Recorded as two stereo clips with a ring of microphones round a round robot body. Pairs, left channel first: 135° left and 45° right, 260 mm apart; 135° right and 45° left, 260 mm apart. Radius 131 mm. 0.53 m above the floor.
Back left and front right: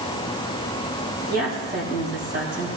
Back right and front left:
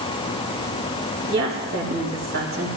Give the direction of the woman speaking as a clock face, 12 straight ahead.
12 o'clock.